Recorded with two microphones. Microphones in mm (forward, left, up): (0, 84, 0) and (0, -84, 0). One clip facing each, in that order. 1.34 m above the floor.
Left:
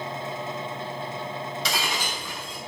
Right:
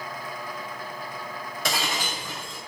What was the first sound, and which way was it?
Breaking glass, 55° right (ahead or behind).